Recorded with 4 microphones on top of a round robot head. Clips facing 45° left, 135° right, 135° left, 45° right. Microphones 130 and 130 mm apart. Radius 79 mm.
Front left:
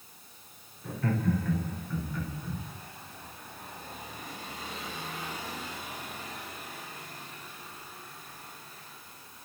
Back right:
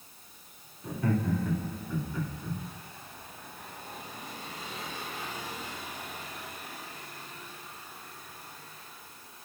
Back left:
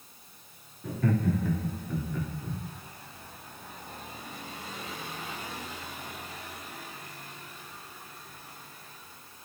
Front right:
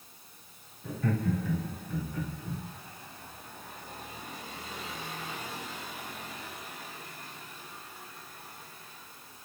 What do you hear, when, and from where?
0.8 s laughter: 150° left, 2.5 m